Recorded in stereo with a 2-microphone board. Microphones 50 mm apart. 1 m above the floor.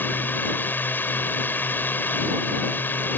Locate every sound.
0.0 s a drone: 45° left (ahead or behind)